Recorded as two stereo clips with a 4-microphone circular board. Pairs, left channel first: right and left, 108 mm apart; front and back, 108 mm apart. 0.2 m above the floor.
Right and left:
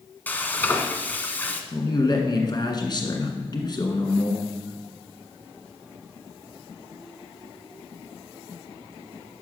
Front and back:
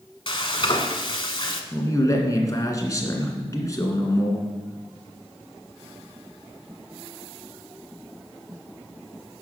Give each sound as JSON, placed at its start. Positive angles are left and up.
{"t": 0.3, "sound": "frying", "azimuth_deg": -20, "distance_m": 1.0}
{"t": 1.7, "sound": "a man speaking", "azimuth_deg": -50, "distance_m": 1.8}